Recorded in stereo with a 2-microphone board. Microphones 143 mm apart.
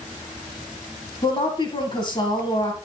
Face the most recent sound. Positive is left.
turn(degrees=35)  # may be behind; listen again after turning